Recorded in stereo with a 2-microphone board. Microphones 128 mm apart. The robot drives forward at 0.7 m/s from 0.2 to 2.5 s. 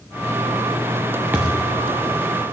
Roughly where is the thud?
Centre.